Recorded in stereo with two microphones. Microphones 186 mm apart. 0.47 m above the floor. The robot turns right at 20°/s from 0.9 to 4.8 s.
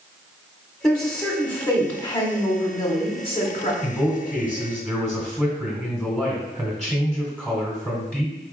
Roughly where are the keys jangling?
I don't hear keys jangling.